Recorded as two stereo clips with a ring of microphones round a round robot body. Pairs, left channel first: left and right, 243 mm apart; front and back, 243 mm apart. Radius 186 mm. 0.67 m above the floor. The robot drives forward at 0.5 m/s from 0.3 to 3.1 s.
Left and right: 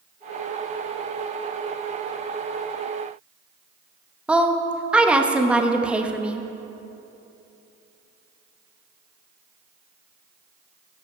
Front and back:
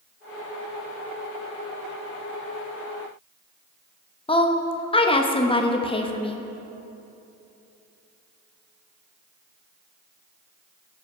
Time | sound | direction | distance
4.3 | a woman speaking | 10° right | 0.9 m